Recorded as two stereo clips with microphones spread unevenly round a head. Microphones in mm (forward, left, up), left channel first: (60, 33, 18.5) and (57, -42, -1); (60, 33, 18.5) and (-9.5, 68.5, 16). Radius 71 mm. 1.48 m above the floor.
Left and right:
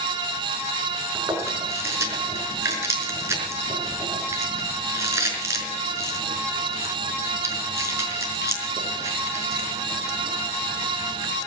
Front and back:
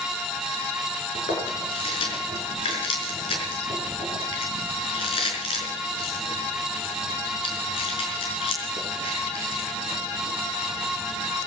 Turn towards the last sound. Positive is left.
turn(degrees=-35)